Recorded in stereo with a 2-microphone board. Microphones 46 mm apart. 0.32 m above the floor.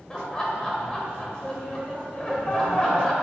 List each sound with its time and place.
0.1 s laughter: 20° left (ahead or behind), 1.2 m